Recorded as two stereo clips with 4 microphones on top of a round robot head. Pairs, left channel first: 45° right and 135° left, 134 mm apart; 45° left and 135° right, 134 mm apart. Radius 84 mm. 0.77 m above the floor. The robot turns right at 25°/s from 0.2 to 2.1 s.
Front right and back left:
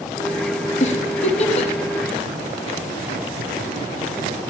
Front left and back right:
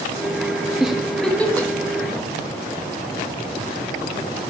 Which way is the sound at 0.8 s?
50° right.